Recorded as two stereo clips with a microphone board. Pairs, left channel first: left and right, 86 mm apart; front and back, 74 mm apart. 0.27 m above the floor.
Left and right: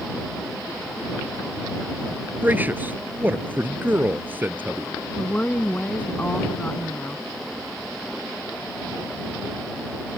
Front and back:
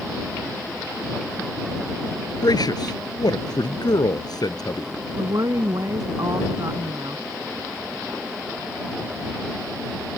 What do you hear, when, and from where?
2.4 s a man speaking: 20° right
5.2 s a woman speaking: 160° left